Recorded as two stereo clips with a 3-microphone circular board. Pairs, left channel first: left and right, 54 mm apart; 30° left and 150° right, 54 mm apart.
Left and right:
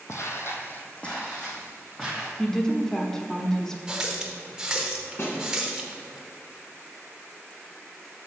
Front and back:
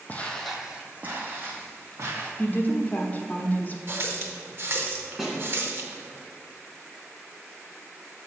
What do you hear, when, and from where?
0.1 s footsteps: 85° left, 0.9 m; by 2.3 s 175° left, 3 m
2.4 s a woman speaking: 20° left, 0.8 m
3.9 s a running tap: 165° right, 0.9 m
5.2 s a snare drum: 125° left, 1.8 m